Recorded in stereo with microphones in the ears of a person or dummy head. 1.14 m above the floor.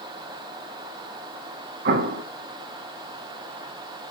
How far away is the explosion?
About 1.9 m.